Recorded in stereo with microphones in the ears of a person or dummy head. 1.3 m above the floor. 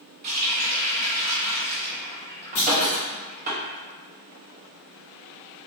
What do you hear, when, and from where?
0.2 s a running tap: 35° right (ahead or behind), 1.0 m
2.5 s a clunk: 45° left (ahead or behind), 1.2 m